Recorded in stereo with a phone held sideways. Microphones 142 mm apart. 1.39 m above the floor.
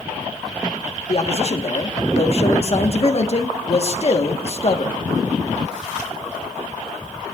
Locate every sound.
1.1 s a man speaking: 45° left (ahead or behind), 1.3 m